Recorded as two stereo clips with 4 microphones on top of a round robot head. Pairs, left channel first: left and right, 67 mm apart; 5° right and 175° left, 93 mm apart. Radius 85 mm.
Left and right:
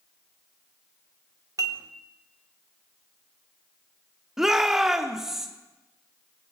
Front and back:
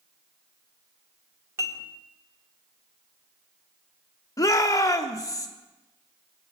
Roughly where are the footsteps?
No footsteps in this recording.